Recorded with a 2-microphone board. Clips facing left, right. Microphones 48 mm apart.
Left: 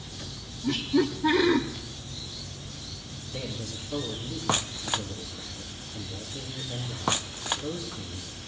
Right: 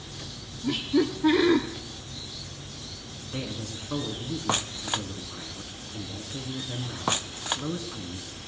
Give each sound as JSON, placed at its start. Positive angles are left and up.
{"t": 0.6, "sound": "laughter", "side_deg": -10, "distance_m": 0.9}
{"t": 3.3, "sound": "a man speaking", "side_deg": -55, "distance_m": 3.5}